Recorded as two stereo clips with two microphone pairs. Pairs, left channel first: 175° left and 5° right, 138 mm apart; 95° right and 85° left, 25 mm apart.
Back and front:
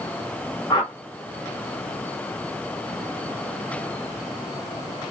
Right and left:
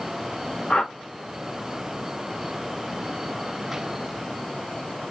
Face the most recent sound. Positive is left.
turn(degrees=-125)